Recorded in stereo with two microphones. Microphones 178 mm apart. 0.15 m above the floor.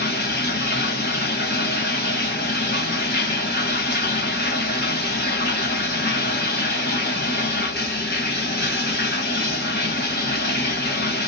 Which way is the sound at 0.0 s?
70° left (ahead or behind).